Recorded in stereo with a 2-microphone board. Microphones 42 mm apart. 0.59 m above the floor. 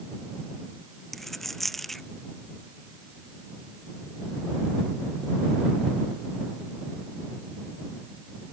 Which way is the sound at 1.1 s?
5° left (ahead or behind).